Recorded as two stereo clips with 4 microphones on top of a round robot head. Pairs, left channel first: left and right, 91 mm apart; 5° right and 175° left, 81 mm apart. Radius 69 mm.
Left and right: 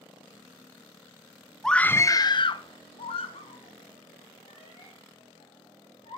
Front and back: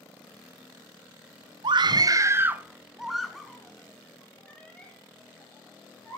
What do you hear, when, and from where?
1.6 s a scream: 175° left, 0.9 m; by 6.2 s 65° left, 4.5 m